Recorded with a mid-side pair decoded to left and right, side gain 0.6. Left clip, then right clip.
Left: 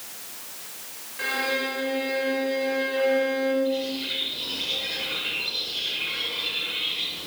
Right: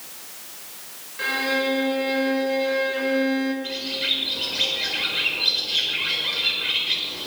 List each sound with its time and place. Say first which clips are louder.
1.2 s a violin: right 3 dB; 15° right, 4.5 m
3.6 s a bird: right 2 dB; 55° right, 5.5 m